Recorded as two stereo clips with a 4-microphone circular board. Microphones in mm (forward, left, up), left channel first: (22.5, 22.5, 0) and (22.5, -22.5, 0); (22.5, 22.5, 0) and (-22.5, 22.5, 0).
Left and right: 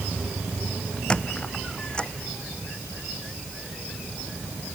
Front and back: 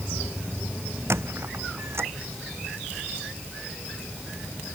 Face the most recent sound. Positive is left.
turn(degrees=160)